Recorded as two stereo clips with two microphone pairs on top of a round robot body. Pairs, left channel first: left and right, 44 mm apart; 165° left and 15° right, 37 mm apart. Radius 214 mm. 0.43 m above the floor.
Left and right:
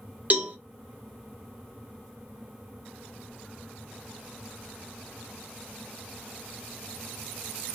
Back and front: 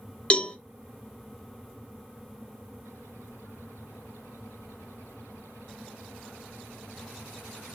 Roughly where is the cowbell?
Behind right.